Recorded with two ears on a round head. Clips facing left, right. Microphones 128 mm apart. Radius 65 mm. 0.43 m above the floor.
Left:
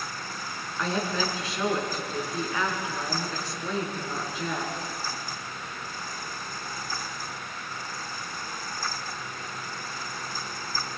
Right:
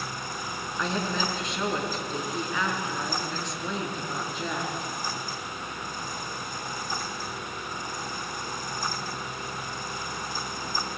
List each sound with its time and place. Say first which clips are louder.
0.8 s a woman speaking: left 1 dB; centre (ahead or behind), 5 m